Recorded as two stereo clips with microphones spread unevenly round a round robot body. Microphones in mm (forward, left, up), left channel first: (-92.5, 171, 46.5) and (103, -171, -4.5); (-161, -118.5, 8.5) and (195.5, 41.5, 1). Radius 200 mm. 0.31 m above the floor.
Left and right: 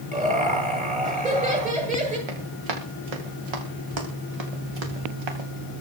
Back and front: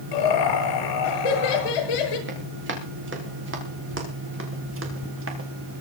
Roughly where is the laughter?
Behind right.